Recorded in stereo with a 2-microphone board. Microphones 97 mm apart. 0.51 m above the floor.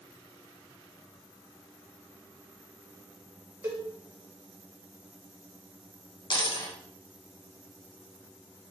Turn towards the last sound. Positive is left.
turn(degrees=55)  # may be behind; listen again after turning